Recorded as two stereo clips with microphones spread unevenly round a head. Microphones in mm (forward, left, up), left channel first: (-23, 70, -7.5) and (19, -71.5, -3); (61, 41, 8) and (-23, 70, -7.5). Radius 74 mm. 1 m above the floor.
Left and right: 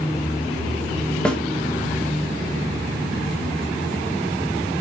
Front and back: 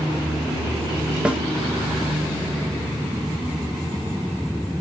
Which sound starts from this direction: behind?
A snare drum, at 1.2 s.